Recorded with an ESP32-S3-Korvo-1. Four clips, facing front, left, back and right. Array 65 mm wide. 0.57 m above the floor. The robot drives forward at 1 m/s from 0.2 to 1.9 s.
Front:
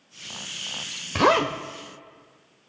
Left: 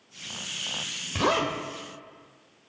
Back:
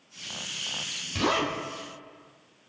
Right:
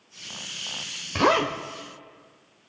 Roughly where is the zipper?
Ahead right.